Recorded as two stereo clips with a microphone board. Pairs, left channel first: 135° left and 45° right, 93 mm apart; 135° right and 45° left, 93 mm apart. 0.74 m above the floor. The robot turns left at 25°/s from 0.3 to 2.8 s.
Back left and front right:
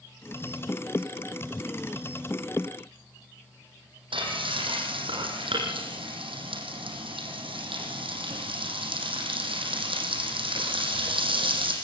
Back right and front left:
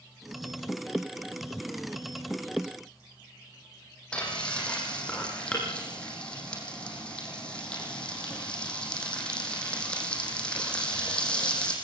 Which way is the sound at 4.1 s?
55° right.